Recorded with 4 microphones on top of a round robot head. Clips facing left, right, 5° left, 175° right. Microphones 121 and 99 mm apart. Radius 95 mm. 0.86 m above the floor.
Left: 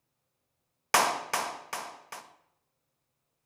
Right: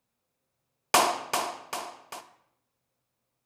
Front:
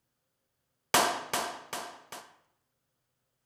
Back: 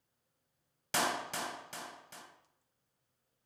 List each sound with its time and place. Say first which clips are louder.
0.9 s a clap: right 3 dB, front 7 dB; 20° right, 0.6 m